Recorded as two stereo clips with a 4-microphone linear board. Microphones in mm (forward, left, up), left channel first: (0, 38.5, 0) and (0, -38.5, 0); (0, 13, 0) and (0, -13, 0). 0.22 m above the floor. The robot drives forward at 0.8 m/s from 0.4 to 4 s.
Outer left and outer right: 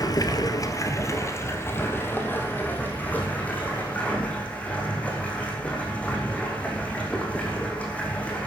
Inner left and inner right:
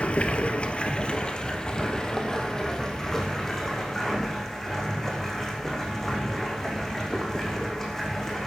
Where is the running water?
55° left (ahead or behind), 1.5 m; by 8.5 s 20° left (ahead or behind), 4 m.